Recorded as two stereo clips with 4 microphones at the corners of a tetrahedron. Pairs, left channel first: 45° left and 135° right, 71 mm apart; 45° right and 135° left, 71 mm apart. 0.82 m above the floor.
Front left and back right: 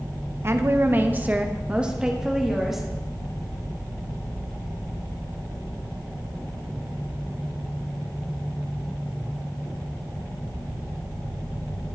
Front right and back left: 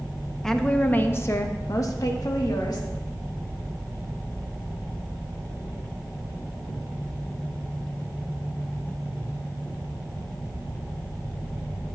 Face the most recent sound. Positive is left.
turn(degrees=-50)